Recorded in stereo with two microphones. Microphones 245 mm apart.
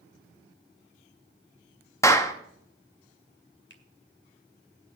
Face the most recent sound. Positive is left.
turn(degrees=50)  # may be behind; listen again after turning